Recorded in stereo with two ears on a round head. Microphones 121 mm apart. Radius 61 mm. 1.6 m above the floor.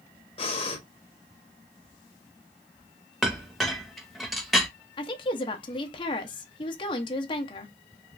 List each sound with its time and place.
0.4 s breathing: 40° left (ahead or behind), 1.0 m
3.2 s a clink: centre (ahead or behind), 0.9 m
5.0 s a woman speaking: 35° left (ahead or behind), 0.7 m